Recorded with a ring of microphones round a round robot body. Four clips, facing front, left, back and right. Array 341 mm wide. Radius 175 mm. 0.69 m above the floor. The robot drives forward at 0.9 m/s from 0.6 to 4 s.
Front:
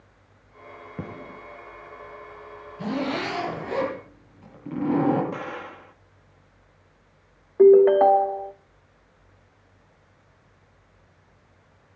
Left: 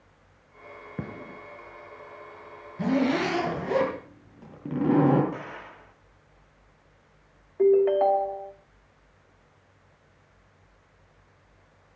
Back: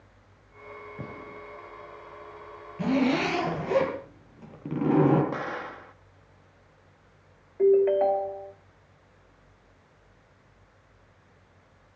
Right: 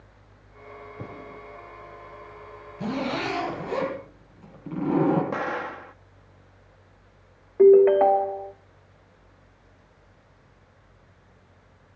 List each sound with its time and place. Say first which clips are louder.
1.0 s a gunshot: left 4 dB, front 6 dB; 60° left, 4.5 m
2.8 s a zipper: left 4 dB, back 3 dB; 120° left, 7.5 m; by 5.2 s 130° left, 8 m
5.3 s an explosion: right 10 dB, back 1 dB; 100° right, 1.0 m
7.6 s a ringtone: right 6 dB, front 7 dB; 30° right, 0.7 m